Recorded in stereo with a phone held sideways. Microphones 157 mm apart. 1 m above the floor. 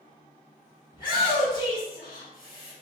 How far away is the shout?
About 1.7 m.